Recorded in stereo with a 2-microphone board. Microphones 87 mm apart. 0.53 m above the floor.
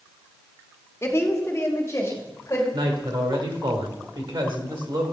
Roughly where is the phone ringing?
No phone ringing in this recording.